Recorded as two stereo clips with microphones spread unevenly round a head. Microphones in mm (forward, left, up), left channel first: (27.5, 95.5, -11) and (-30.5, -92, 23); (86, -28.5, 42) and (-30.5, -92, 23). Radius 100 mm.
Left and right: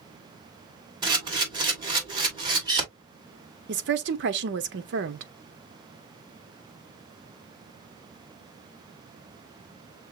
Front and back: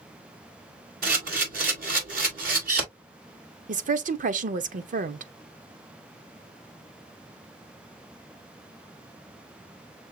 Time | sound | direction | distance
1.0 | a camera shutter | 165° right | 2 m
3.7 | a woman speaking | 130° right | 0.8 m